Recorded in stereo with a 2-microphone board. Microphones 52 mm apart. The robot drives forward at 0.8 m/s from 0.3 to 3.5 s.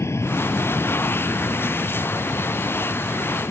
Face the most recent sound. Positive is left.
turn(degrees=60)  # may be behind; listen again after turning